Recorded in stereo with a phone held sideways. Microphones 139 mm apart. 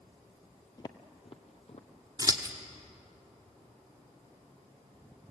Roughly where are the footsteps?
Left.